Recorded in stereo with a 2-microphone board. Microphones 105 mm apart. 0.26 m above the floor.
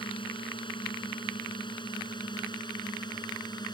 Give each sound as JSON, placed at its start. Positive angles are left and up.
{"t": 0.0, "sound": "a drone", "side_deg": 50}